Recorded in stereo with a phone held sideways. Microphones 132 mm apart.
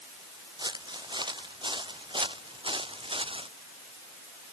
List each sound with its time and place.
0.6 s footsteps: 30° right (ahead or behind); by 3.5 s 40° right (ahead or behind)